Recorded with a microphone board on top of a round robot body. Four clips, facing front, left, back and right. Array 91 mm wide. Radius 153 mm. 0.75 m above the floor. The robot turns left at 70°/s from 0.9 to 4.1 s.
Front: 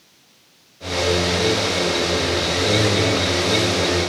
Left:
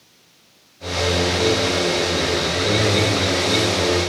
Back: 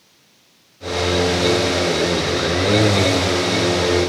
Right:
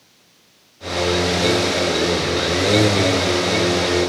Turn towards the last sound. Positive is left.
No sound to turn to.